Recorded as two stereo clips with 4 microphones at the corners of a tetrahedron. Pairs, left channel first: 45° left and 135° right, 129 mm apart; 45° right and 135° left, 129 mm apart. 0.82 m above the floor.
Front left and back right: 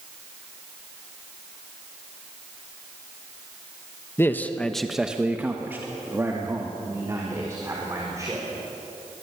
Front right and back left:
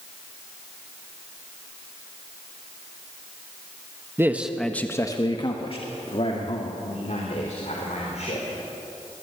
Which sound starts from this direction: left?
A man speaking, at 4.2 s.